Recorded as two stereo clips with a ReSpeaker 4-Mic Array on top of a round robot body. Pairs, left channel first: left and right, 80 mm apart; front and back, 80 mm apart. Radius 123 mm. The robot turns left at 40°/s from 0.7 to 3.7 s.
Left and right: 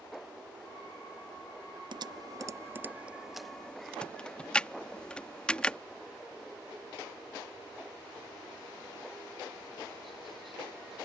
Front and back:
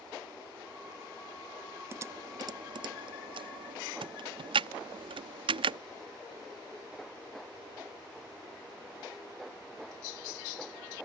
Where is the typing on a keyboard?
120° right; by 5.8 s 170° left.